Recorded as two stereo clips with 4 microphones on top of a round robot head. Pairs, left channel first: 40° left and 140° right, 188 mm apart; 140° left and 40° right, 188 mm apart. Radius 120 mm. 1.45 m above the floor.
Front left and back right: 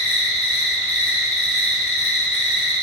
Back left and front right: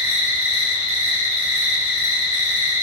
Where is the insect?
35° right, 0.8 m.